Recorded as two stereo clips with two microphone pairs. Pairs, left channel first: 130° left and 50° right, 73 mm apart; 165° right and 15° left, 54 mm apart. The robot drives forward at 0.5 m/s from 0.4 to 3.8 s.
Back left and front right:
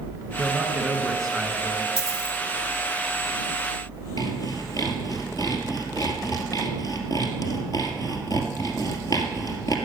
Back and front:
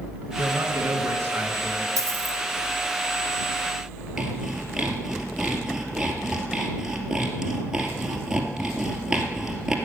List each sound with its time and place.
0.4 s a man speaking: 35° left, 2.5 m; by 1.9 s 50° left, 1.9 m
2.0 s a dropped coin: 25° left, 2 m; by 2.4 s 30° left, 2 m
4.2 s sawing: 100° left, 2 m